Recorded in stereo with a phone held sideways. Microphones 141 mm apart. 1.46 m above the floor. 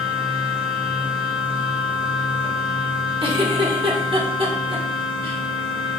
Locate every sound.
0.0 s a machine running: 40° right (ahead or behind), 1.6 m
3.2 s a giggle: 40° right (ahead or behind), 1.7 m